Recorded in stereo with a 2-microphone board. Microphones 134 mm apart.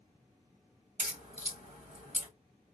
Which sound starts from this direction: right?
A crack, at 1.0 s.